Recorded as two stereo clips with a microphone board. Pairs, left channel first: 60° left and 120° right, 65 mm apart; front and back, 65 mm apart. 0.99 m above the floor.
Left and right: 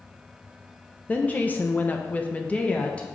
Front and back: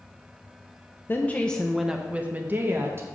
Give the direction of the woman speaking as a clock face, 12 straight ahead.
12 o'clock.